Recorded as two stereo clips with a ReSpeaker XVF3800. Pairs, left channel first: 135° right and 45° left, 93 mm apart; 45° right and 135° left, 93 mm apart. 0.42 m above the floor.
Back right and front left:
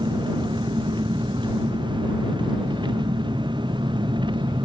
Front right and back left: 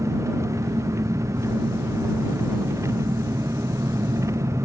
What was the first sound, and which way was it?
An engine running, 75° left.